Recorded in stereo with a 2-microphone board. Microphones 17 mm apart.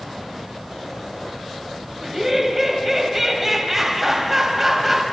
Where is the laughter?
10° right (ahead or behind), 2.5 m.